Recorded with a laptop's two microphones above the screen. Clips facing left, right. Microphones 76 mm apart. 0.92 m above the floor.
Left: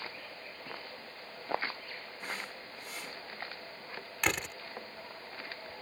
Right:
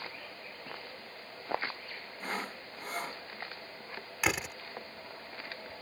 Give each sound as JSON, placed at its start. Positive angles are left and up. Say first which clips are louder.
{"t": 2.2, "sound": "sawing", "louder": "right 5 dB", "side_deg": -45}
{"t": 4.2, "sound": "a door slam", "louder": "right 1 dB", "side_deg": -5}